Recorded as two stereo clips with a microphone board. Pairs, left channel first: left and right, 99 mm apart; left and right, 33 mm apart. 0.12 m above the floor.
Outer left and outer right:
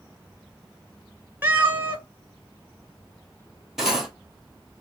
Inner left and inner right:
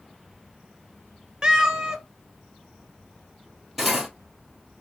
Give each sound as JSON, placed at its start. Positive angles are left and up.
{"t": 1.4, "sound": "a cat meowing", "side_deg": -20, "distance_m": 1.0}
{"t": 3.8, "sound": "cutlery clinking", "side_deg": -5, "distance_m": 2.0}